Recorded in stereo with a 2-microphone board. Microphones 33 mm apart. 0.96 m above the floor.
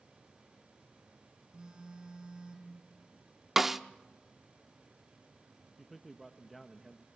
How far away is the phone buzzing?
About 6 m.